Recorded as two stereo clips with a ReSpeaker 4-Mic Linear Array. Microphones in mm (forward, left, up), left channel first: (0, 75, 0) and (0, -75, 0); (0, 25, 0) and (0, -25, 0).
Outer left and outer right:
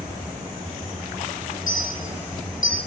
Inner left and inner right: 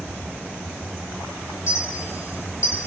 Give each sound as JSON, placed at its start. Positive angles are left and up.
{"t": 1.7, "sound": "a clink", "side_deg": 65, "distance_m": 3.0}